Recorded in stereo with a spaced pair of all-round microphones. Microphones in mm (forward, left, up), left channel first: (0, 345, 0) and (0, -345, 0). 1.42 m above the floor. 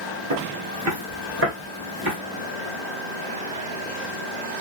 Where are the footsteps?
25° right (ahead or behind), 1.5 m; by 2.1 s 15° right (ahead or behind), 1.7 m.